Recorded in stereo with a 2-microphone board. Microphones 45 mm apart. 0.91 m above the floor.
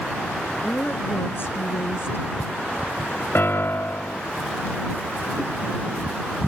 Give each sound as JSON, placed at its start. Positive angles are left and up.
{"t": 0.6, "sound": "a woman speaking", "side_deg": 55}
{"t": 3.4, "sound": "a piano", "side_deg": 60}